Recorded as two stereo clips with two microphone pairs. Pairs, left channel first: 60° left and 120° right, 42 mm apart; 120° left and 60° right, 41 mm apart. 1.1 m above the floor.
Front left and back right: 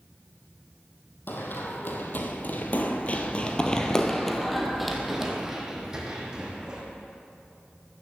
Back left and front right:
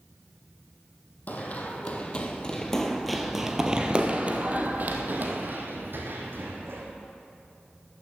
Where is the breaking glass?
I don't hear breaking glass.